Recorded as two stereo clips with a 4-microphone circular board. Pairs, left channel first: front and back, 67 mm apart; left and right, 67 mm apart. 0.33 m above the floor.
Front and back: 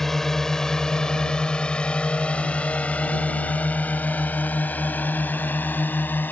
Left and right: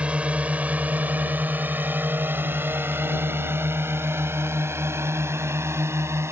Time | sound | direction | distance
0.0 | a drone | 75° right | ?